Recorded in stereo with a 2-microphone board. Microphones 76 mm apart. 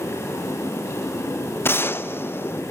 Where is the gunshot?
30° left (ahead or behind), 0.5 m.